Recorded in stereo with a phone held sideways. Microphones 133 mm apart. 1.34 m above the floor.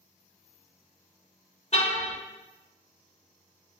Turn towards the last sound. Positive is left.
turn(degrees=55)  # may be behind; listen again after turning